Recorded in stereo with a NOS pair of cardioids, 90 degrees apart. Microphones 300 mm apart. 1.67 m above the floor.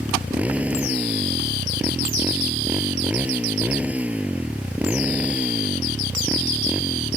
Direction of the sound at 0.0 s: 5° right.